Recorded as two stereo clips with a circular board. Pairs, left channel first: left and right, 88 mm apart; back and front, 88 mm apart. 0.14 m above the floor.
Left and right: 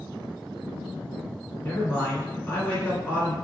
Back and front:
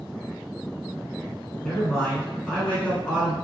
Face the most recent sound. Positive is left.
turn(degrees=120)